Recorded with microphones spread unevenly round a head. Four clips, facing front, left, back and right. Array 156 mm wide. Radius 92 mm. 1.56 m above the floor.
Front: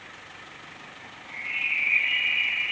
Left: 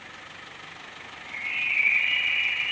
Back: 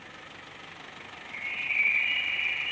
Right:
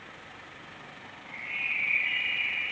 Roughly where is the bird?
Behind left.